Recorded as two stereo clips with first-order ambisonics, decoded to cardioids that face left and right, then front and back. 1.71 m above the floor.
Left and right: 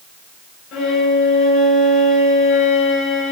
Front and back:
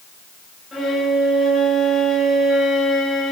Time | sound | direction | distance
0.7 | a violin | 70° left | 2.5 m